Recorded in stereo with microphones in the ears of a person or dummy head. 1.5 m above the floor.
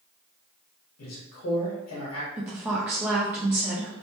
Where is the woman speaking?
15° right (ahead or behind), 0.6 m.